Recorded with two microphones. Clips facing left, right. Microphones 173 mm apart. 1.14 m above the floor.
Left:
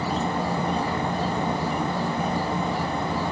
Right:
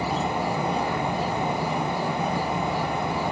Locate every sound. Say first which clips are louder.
0.0 s an insect: even; 25° left (ahead or behind), 1.2 m